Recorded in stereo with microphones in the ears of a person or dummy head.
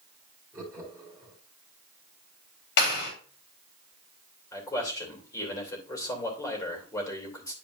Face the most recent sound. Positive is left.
turn(degrees=25)  # may be behind; listen again after turning